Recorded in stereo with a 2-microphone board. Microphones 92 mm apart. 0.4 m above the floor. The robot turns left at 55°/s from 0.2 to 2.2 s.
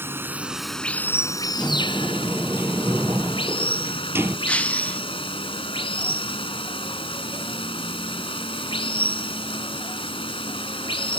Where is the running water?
155° right; by 11.2 s 95° left.